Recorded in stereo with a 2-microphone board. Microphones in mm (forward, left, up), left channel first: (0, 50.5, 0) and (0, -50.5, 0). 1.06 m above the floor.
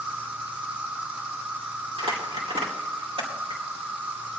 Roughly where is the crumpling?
Right.